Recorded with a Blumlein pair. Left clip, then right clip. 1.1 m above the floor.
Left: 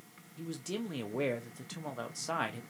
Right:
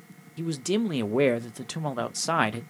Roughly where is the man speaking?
Ahead right.